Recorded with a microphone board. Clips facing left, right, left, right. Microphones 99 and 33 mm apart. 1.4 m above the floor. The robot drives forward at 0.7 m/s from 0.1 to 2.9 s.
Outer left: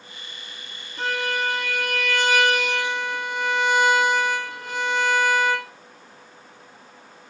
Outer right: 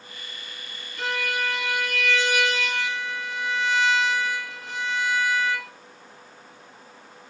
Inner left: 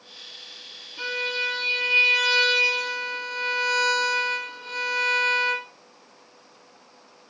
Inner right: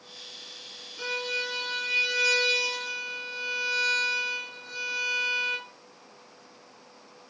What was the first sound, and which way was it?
A violin, 35° left (ahead or behind).